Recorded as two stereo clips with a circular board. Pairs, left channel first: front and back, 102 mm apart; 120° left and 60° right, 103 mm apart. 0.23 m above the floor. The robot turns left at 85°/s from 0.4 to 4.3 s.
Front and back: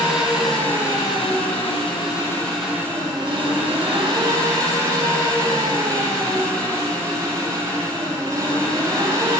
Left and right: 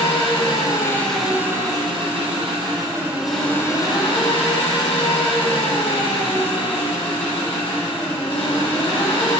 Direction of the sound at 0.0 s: 95° left.